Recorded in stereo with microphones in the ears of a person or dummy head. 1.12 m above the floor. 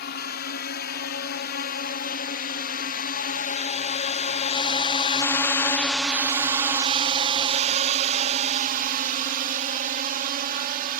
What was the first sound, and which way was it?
A drone, 45° left (ahead or behind).